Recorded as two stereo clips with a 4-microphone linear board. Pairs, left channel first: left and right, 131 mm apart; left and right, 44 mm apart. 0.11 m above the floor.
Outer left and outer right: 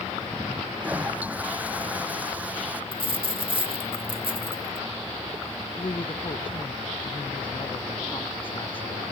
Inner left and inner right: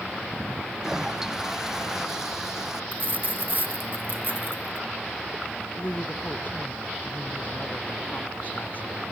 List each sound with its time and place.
0.8 s a toilet flushing: 10° right (ahead or behind)
2.9 s a dropped coin: 40° right (ahead or behind)
5.8 s a woman speaking: 40° left (ahead or behind)